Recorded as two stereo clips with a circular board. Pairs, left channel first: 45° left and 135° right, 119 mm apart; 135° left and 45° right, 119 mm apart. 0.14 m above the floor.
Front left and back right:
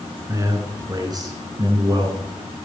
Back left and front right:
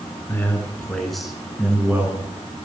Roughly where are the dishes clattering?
No dishes clattering in this recording.